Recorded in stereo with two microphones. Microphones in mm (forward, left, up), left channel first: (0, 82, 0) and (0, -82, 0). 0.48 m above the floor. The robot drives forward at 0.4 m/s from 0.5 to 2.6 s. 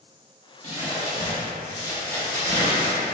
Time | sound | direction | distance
0.6 | crumpling | 40° left (ahead or behind) | 0.8 m